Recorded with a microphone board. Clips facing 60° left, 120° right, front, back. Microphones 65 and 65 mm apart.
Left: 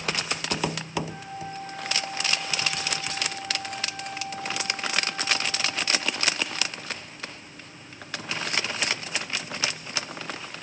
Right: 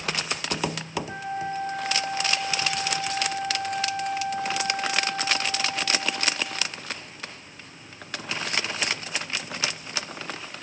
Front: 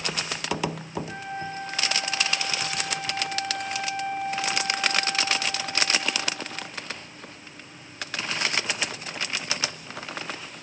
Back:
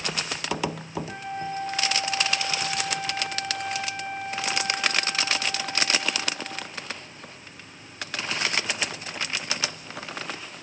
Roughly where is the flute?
Right.